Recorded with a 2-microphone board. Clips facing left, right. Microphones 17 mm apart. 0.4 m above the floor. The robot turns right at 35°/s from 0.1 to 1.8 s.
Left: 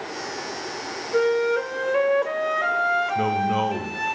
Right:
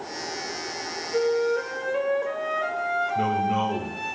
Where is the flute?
30° left (ahead or behind), 0.7 m; by 4.2 s 20° left (ahead or behind), 0.7 m.